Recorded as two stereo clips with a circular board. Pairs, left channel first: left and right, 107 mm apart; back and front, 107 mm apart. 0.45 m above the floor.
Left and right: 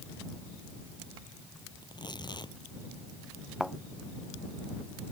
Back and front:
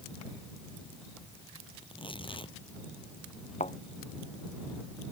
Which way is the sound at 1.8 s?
140° left.